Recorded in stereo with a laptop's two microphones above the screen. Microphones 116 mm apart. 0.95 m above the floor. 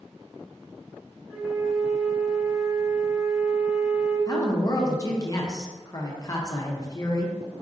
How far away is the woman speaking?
About 0.5 m.